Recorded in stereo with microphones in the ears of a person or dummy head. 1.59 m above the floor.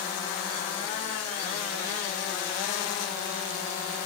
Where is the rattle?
No rattle in this recording.